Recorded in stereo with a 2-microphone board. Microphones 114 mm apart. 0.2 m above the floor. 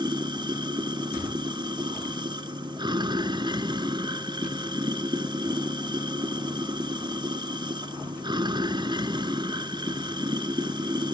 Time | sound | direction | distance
0.0 | running water | 40° right (ahead or behind) | 1.2 m